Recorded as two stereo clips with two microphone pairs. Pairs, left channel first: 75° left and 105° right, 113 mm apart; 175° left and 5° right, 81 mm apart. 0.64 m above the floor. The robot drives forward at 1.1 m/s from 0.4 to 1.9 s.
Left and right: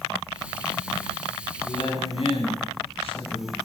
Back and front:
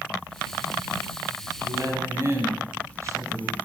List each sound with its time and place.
1.6 s a woman speaking: 40° left, 4.5 m; by 3.5 s 45° left, 4 m